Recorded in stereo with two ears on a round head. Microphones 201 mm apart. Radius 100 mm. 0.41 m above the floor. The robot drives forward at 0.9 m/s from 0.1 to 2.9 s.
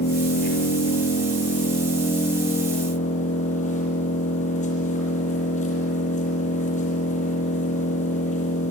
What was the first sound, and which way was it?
An engine running, 45° left (ahead or behind).